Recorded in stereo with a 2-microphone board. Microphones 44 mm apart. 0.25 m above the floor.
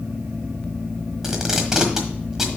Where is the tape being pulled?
15° right (ahead or behind), 1.3 m.